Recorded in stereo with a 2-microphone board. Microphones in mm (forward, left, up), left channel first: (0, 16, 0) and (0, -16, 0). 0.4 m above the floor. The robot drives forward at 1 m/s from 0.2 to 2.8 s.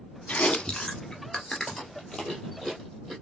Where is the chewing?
50° left (ahead or behind), 0.6 m; by 3.1 s 10° left (ahead or behind), 3 m.